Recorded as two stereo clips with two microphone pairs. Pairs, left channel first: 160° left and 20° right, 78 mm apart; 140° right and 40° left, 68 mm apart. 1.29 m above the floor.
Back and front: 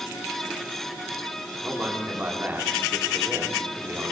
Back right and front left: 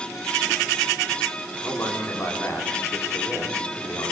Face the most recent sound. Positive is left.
turn(degrees=-85)